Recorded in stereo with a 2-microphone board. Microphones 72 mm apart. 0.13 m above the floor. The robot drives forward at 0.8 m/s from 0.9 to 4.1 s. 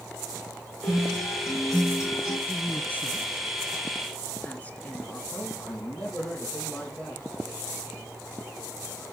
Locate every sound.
0.8 s a guitar: 45° left (ahead or behind), 8 m; by 2.4 s 40° left (ahead or behind), 9 m
2.5 s a woman speaking: 25° left (ahead or behind), 1.5 m; by 5.2 s 20° left (ahead or behind), 1.8 m
5.3 s a man speaking: 15° left (ahead or behind), 7 m